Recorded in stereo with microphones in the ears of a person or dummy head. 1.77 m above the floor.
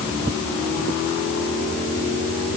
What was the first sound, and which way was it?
Only background noise.